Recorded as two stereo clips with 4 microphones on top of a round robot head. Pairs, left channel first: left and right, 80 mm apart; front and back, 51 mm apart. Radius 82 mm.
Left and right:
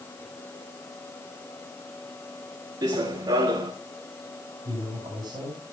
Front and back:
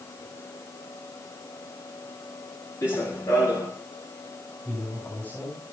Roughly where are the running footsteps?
Ahead right.